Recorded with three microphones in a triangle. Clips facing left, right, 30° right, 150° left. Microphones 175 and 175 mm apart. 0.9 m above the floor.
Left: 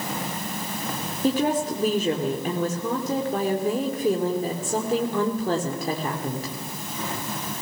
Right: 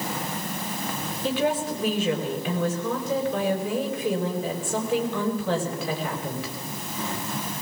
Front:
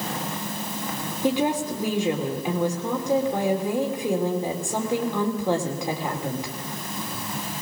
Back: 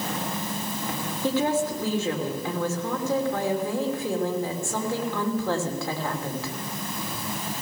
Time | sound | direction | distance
1.2 | a woman speaking | 45° left | 2.5 m